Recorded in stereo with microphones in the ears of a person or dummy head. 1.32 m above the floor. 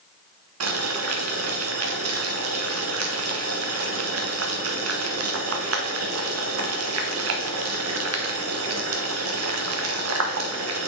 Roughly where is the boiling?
Right.